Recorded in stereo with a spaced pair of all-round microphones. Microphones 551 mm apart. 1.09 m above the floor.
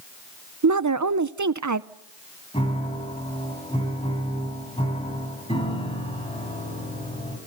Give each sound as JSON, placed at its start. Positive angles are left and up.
{"t": 0.6, "sound": "a woman speaking", "side_deg": -35, "distance_m": 0.6}
{"t": 2.5, "sound": "a piano", "side_deg": 10, "distance_m": 4.5}